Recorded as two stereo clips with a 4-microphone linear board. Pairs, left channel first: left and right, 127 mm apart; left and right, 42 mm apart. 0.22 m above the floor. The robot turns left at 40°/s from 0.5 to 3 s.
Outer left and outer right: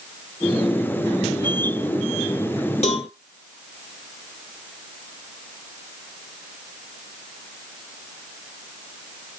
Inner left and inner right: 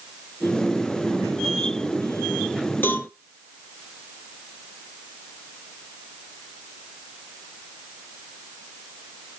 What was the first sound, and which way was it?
A cowbell, 60° left (ahead or behind).